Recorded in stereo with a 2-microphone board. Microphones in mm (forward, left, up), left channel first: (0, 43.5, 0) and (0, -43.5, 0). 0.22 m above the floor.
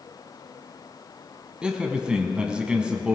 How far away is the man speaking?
About 1.4 m.